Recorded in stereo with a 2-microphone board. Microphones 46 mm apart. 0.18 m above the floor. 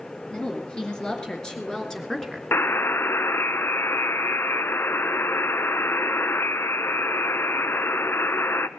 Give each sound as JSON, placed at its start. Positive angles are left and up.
{"t": 0.3, "sound": "a woman speaking", "side_deg": 20, "distance_m": 3.5}
{"t": 2.5, "sound": "a buzzer", "side_deg": 55, "distance_m": 0.6}